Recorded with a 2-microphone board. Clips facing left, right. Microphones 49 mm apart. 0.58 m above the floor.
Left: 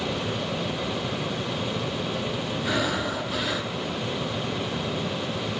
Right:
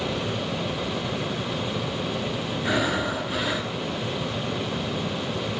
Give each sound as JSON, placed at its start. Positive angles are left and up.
{"t": 2.6, "sound": "breathing", "side_deg": -15, "distance_m": 2.0}